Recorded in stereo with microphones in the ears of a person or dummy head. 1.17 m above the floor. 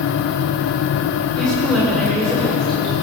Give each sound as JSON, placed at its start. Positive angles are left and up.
{"t": 1.4, "sound": "a woman speaking", "side_deg": -10, "distance_m": 4.0}